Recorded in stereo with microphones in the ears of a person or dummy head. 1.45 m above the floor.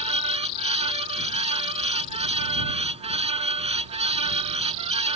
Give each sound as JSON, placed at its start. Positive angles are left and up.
{"t": 0.0, "sound": "a fan", "side_deg": -35}